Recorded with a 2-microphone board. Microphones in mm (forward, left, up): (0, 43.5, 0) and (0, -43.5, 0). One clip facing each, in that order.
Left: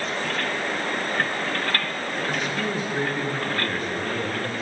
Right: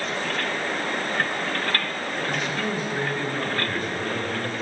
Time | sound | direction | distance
2.3 | a man speaking | 10° left (ahead or behind) | 7 m